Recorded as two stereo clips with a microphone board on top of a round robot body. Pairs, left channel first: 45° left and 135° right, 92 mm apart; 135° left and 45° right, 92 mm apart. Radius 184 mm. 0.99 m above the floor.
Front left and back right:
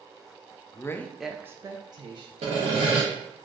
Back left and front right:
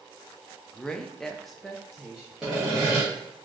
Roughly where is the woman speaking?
Ahead left.